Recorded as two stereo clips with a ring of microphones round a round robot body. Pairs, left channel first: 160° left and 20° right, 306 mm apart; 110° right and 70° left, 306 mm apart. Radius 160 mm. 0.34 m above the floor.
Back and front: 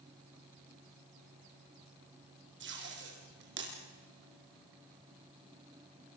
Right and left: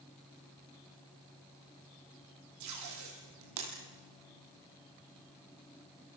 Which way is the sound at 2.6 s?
35° left.